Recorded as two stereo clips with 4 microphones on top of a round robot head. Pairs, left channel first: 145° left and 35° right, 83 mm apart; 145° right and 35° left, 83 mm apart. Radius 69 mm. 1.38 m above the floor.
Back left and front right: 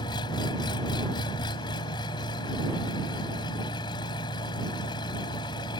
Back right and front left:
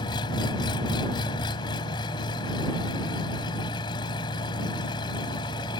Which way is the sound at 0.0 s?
Straight behind.